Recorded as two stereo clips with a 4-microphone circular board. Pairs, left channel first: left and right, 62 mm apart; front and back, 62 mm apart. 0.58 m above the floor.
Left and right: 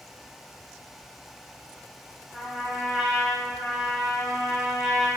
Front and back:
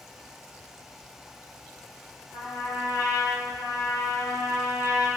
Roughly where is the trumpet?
Ahead.